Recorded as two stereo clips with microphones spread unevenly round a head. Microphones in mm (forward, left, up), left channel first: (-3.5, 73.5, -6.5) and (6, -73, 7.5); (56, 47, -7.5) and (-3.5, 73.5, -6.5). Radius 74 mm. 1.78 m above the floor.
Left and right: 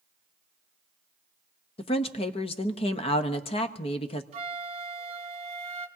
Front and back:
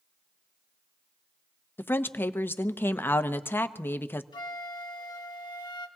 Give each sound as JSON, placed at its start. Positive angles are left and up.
{"t": 1.8, "sound": "a woman speaking", "azimuth_deg": 35, "distance_m": 0.9}
{"t": 4.3, "sound": "a flute", "azimuth_deg": -40, "distance_m": 1.4}